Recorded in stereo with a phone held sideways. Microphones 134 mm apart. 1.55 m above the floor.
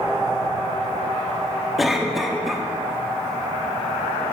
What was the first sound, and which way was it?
A cough, centre (ahead or behind).